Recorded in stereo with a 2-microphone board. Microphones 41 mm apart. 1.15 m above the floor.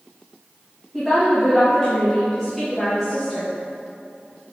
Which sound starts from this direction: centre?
A woman speaking, at 0.9 s.